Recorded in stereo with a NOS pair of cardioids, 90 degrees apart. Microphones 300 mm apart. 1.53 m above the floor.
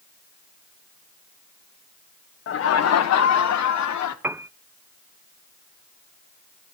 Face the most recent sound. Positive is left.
turn(degrees=-5)